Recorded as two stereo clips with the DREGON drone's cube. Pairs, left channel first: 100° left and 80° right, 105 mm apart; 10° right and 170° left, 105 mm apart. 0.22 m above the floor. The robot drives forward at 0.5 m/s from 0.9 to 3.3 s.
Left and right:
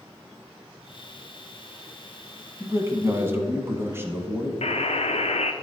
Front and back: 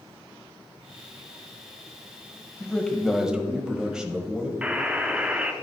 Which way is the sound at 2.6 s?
70° right.